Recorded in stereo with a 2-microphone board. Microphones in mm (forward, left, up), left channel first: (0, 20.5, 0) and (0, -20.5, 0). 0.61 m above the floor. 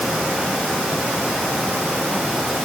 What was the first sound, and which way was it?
Only background noise.